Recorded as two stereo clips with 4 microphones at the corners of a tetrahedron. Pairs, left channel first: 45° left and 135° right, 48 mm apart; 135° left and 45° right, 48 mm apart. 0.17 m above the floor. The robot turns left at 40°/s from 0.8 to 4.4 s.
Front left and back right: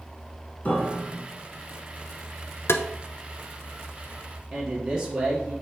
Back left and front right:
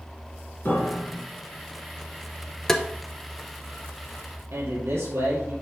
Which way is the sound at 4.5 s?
60° right.